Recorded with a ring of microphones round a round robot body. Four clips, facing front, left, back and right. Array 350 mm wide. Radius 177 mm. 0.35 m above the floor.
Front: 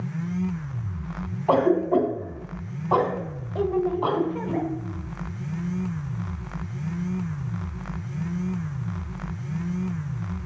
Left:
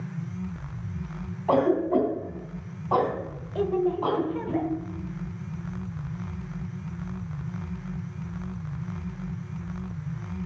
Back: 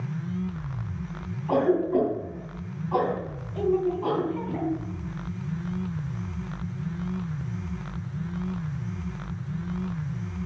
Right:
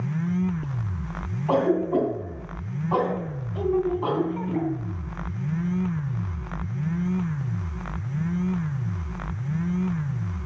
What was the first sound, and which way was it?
A cough, 25° left.